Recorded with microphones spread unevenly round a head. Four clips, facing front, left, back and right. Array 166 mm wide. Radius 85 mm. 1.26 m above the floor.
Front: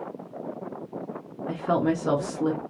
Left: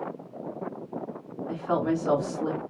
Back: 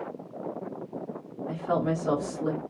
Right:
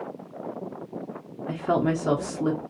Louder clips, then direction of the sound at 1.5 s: Right 2 dB, front 3 dB; 65° right.